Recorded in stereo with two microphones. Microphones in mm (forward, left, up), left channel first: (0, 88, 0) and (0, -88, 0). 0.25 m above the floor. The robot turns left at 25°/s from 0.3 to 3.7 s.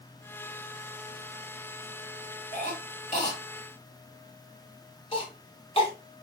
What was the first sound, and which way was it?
A cough, 55° left (ahead or behind).